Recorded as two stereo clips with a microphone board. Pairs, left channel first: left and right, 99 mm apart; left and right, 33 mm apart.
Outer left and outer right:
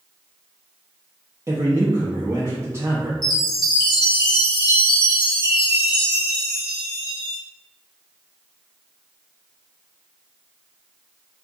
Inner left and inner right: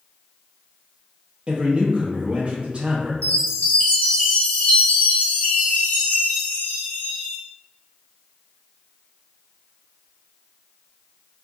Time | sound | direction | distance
1.5 | a man speaking | 30° right (ahead or behind) | 0.6 m
3.2 | a chime | 45° left (ahead or behind) | 1.3 m